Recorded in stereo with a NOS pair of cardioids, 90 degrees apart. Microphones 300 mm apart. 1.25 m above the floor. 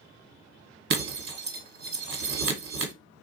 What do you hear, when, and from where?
0.9 s breaking glass: 45° right, 1.6 m